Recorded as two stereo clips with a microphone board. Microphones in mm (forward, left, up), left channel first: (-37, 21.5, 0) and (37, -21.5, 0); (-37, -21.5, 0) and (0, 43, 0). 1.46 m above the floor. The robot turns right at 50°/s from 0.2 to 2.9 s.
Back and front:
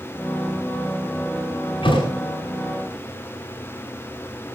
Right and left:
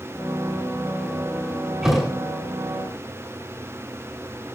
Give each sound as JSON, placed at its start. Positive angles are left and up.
{"t": 1.8, "sound": "a thud", "azimuth_deg": 140, "distance_m": 7.0}